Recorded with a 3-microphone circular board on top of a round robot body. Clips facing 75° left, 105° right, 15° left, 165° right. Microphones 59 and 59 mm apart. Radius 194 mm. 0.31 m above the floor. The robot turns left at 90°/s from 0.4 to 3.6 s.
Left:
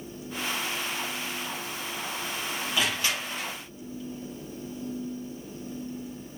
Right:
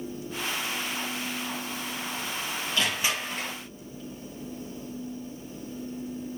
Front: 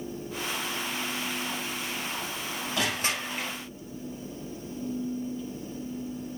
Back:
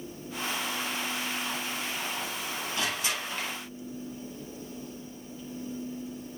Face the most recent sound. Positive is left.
turn(degrees=-85)